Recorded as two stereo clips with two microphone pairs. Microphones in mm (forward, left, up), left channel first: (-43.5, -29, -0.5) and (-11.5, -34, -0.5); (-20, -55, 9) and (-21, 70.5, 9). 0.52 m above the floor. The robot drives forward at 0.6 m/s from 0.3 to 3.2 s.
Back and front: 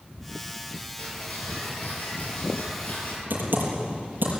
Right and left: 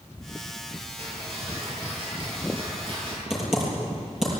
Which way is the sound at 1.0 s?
135° left.